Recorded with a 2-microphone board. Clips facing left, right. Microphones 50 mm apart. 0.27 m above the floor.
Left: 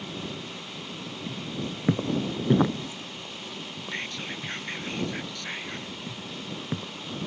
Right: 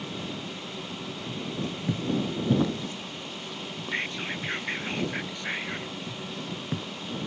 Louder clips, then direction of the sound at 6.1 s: Right 1 dB; 15° left (ahead or behind).